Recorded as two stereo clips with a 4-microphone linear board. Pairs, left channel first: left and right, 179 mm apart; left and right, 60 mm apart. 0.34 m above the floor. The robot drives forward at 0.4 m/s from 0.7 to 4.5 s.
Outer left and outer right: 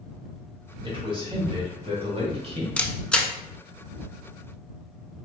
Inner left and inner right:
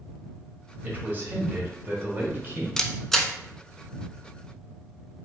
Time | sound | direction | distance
0.8 | a man speaking | 30° right (ahead or behind) | 2 m
2.8 | a camera shutter | 5° left (ahead or behind) | 0.6 m